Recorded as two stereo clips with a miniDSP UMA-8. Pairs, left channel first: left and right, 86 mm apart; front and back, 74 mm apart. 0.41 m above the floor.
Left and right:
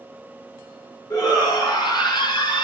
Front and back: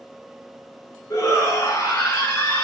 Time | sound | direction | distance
1.1 | a shout | 50° left | 5.5 m